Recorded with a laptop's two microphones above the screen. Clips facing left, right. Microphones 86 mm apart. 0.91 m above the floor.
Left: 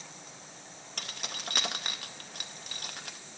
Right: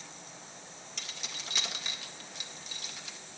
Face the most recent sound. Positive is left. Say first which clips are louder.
# left 5 dB
turn(degrees=55)  # may be behind; listen again after turning